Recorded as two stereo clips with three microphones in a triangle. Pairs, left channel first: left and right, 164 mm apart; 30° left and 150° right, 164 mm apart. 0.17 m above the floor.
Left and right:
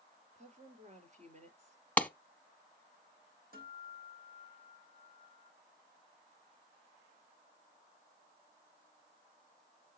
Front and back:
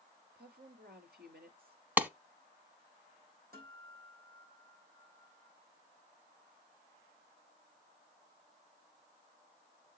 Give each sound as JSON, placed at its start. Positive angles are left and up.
{"t": 0.3, "sound": "a woman speaking", "azimuth_deg": -135, "distance_m": 3.0}
{"t": 2.0, "sound": "a clap", "azimuth_deg": 155, "distance_m": 1.0}
{"t": 3.5, "sound": "a guitar", "azimuth_deg": -120, "distance_m": 4.5}